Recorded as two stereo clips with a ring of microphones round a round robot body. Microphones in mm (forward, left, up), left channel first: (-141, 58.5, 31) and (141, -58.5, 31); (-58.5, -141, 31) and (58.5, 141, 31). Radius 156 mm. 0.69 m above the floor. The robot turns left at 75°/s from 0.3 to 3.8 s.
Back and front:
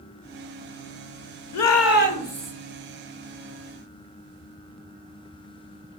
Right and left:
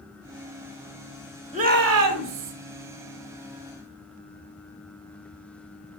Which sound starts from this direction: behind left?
A shout, at 1.5 s.